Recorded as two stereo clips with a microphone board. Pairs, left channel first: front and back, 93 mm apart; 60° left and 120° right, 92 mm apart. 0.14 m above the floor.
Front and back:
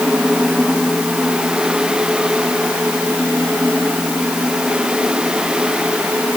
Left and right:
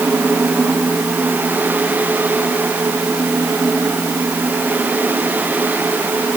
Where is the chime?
No chime in this recording.